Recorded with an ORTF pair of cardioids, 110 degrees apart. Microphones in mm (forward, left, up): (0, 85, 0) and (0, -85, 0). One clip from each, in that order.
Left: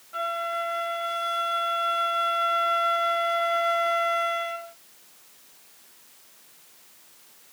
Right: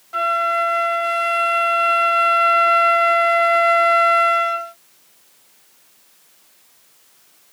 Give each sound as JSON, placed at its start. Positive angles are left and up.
{"t": 0.1, "sound": "a flute", "azimuth_deg": -45, "distance_m": 0.7}